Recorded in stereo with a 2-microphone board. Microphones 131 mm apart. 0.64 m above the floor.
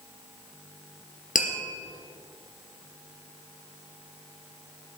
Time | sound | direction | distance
1.4 | tapping | 85° left | 4 m